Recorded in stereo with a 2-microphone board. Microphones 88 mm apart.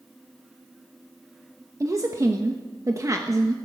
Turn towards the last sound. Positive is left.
turn(degrees=-35)  # may be behind; listen again after turning